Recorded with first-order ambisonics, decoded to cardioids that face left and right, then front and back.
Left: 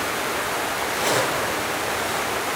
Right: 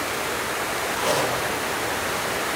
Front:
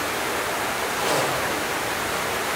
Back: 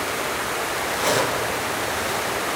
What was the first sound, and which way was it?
A zipper, 145° left.